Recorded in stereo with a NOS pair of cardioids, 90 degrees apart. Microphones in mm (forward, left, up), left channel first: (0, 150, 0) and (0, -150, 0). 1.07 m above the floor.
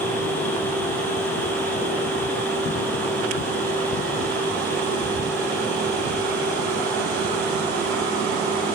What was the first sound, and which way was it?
A fan, 5° left.